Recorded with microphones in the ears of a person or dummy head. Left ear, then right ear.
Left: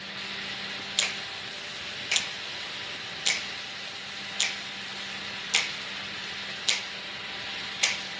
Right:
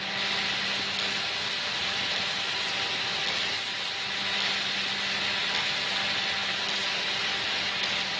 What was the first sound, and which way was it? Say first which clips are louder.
A finger snap: right 2 dB; 70° left (ahead or behind).